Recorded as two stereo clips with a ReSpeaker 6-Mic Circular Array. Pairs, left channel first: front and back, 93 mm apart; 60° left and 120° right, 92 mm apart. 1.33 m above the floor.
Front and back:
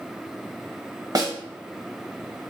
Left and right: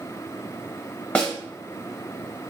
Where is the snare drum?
135° left, 0.6 m.